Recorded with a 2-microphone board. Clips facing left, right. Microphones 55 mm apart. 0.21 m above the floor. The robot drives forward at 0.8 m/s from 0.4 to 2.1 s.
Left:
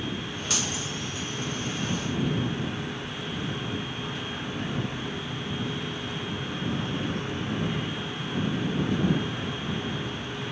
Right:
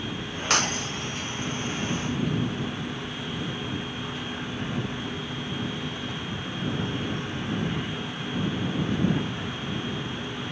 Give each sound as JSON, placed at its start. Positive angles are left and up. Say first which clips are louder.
{"t": 0.5, "sound": "breaking glass", "louder": "right 7 dB", "side_deg": -55}